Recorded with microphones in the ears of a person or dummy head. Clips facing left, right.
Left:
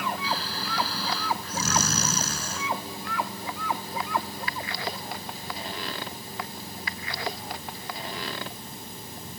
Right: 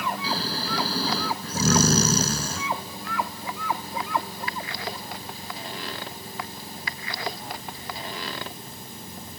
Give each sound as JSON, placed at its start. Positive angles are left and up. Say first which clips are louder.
{"t": 0.2, "sound": "snoring", "louder": "right 3 dB", "side_deg": -35}